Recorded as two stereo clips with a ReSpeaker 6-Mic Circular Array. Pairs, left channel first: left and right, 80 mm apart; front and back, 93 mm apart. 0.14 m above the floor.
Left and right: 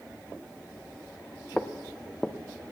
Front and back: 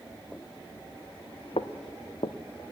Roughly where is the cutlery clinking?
I don't hear cutlery clinking.